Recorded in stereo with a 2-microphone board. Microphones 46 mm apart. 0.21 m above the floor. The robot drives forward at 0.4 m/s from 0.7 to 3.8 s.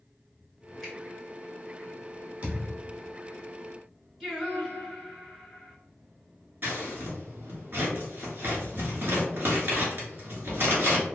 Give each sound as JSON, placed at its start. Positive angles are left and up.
{"t": 0.8, "sound": "a finger snap", "side_deg": -15, "distance_m": 1.8}
{"t": 2.4, "sound": "a thud", "side_deg": -35, "distance_m": 1.3}
{"t": 4.2, "sound": "singing", "side_deg": -5, "distance_m": 1.5}
{"t": 6.6, "sound": "scissors", "side_deg": -50, "distance_m": 1.2}